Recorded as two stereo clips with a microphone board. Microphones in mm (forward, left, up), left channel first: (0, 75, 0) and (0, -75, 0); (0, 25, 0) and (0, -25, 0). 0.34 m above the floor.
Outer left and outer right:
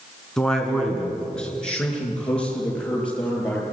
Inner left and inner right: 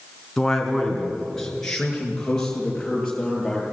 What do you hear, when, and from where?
0.4 s a man speaking: 5° left (ahead or behind), 3.5 m